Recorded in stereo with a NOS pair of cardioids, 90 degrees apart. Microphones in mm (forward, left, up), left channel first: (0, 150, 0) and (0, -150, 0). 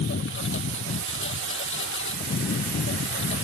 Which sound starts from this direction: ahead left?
A lawn mower, at 0.0 s.